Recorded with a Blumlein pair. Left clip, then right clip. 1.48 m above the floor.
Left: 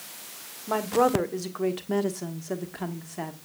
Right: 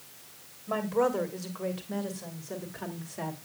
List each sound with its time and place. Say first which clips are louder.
0.7 s a woman speaking: left 4 dB; 20° left, 1.3 m; by 3.4 s 80° left, 1.5 m